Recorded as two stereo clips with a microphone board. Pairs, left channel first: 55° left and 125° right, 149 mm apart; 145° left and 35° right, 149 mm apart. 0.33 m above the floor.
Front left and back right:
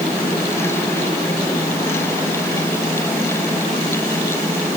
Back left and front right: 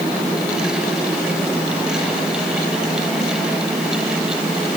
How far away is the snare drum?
No snare drum in this recording.